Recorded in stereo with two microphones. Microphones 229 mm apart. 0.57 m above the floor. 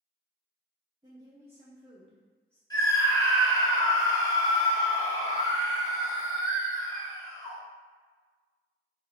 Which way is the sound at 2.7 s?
15° left (ahead or behind).